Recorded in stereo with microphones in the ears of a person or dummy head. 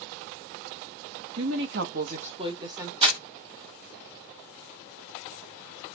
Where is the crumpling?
25° right (ahead or behind), 1.4 m.